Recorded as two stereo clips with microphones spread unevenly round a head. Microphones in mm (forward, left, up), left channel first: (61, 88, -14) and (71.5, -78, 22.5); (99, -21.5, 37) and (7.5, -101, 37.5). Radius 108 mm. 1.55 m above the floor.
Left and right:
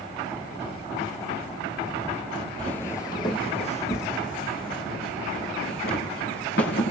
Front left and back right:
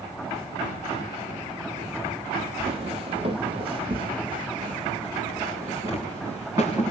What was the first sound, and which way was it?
Footsteps, 165° right.